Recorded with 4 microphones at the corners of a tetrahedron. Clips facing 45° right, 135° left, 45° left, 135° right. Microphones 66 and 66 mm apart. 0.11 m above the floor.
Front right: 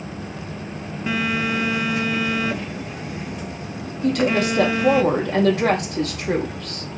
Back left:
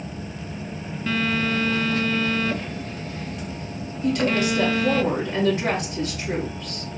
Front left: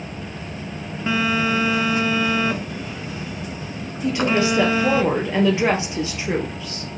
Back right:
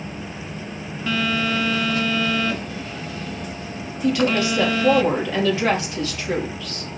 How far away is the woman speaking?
About 2.5 m.